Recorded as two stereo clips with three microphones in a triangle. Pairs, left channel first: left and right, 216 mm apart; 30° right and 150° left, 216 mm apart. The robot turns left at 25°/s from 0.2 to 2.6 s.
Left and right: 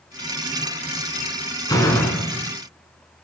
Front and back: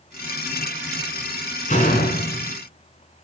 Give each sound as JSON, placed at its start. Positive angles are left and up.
{"t": 1.7, "sound": "a door slam", "azimuth_deg": 20, "distance_m": 1.6}